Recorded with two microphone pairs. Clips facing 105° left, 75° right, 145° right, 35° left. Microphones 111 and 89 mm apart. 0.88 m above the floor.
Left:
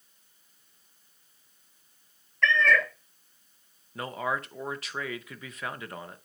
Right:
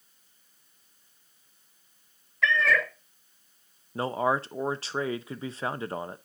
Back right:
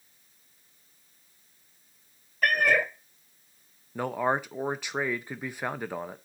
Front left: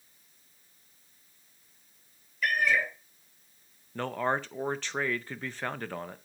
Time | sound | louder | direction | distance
2.4 | a cat meowing | left 1 dB, back right 3 dB | 160° right | 0.9 m
4.0 | a man speaking | right 5 dB, back right 2 dB | 80° right | 0.6 m